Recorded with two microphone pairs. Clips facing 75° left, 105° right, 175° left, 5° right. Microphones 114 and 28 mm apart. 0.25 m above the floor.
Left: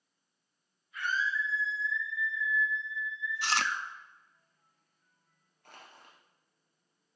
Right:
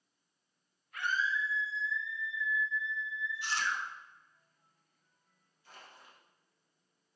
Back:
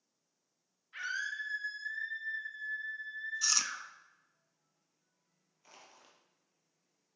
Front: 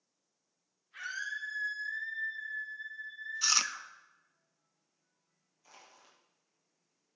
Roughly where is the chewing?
Ahead left.